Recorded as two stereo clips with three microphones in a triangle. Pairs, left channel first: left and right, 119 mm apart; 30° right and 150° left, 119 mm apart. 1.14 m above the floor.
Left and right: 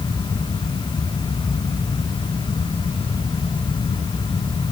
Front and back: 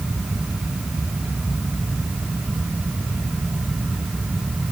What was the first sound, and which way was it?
Only background noise.